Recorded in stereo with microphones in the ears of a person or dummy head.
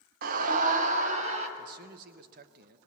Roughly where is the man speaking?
Right.